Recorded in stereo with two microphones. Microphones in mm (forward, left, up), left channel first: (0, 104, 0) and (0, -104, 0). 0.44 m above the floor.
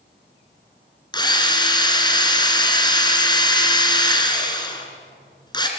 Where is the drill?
20° left (ahead or behind), 3 m.